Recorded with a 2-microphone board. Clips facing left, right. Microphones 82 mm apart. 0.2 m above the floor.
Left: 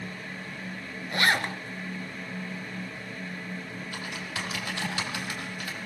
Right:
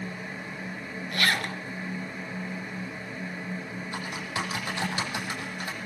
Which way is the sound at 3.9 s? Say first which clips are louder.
Right 4 dB; 25° right (ahead or behind).